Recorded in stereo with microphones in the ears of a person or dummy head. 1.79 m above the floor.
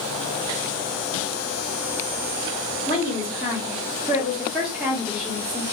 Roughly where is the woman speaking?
Centre.